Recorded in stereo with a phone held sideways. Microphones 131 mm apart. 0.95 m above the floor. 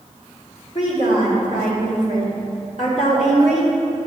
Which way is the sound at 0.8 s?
60° left (ahead or behind).